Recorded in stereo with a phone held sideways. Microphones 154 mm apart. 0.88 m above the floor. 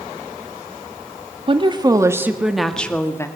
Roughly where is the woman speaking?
Right.